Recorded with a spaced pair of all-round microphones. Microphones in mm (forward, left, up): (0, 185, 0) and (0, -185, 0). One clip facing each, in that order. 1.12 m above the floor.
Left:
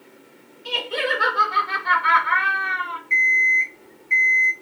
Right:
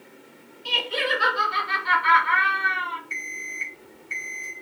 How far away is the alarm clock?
About 0.9 m.